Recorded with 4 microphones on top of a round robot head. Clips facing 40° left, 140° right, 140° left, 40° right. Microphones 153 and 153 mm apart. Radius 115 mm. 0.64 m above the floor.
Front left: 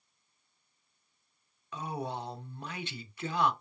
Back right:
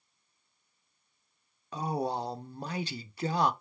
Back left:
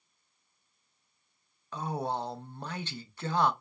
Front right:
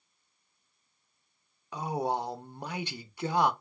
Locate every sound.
1.7 s a man speaking: 110° right, 0.7 m